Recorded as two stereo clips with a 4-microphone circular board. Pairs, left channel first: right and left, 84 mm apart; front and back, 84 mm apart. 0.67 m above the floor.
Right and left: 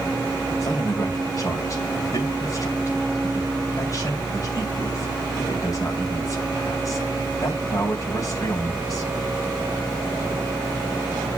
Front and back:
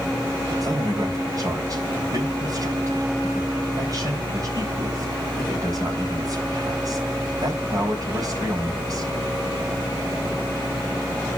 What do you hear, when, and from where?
0.6 s a man speaking: 140° right, 3.5 m